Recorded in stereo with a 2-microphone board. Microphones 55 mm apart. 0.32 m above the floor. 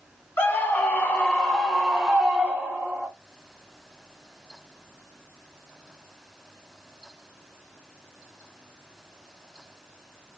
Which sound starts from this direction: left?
A scream, at 0.4 s.